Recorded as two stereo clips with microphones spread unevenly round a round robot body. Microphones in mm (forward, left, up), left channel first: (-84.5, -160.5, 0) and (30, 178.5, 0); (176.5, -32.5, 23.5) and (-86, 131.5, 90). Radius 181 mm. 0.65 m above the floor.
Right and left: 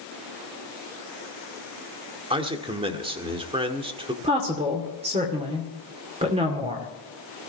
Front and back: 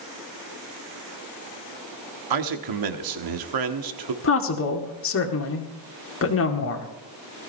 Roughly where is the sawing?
I don't hear sawing.